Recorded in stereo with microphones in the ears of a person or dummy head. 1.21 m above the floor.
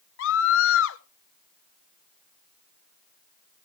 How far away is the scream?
About 0.5 m.